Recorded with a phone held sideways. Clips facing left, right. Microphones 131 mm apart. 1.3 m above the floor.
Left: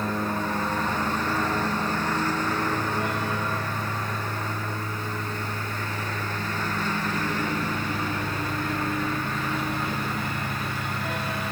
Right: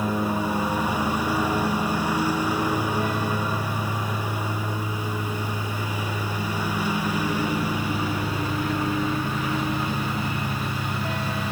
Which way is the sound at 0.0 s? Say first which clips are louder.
Right 3 dB; 10° right (ahead or behind).